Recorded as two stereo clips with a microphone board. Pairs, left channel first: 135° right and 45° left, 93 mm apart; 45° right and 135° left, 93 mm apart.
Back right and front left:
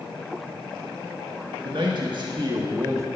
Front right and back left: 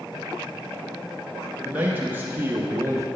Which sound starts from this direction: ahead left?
A man speaking, at 1.6 s.